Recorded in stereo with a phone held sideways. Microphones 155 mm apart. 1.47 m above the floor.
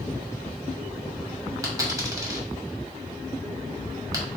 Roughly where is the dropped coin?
Right.